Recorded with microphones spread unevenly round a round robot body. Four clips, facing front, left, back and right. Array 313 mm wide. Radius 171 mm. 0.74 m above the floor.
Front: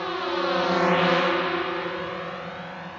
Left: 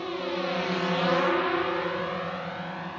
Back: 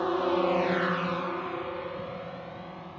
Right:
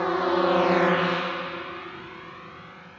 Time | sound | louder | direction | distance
0.0 | a drone | right 8 dB, back 1 dB | 85° right | ?